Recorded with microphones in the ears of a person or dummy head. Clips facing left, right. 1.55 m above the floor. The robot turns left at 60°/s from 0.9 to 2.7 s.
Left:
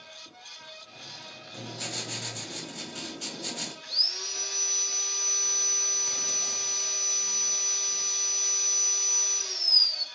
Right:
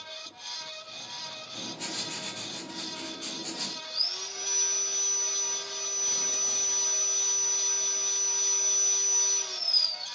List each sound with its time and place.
1.5 s writing: 145° left, 1.7 m; by 3.7 s 75° left, 1.7 m
3.8 s sawing: 20° left (ahead or behind), 0.6 m